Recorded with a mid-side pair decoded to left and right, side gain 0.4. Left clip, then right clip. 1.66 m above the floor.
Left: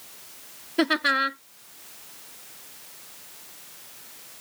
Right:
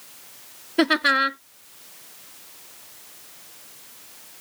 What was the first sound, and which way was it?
Laughter, 30° right.